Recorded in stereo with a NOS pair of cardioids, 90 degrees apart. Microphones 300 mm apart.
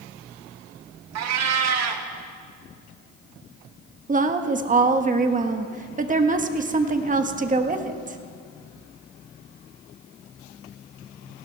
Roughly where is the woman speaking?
Ahead right.